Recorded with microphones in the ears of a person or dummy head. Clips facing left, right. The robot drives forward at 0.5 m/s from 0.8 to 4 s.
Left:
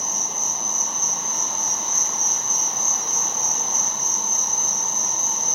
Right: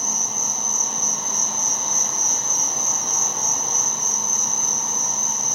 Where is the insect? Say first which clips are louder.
Right 1 dB; 35° right (ahead or behind), 1.5 m; by 5.5 s 65° right (ahead or behind), 0.9 m.